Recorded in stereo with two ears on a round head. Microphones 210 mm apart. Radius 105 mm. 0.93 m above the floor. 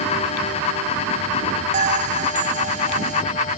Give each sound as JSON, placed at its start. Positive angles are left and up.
{"t": 1.7, "sound": "a bell", "side_deg": -30}